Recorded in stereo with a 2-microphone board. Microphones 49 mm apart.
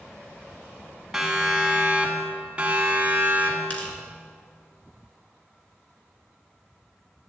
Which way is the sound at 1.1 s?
10° right (ahead or behind).